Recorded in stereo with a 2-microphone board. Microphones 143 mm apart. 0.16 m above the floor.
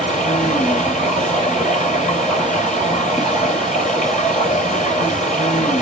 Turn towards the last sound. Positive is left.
turn(degrees=60)  # may be behind; listen again after turning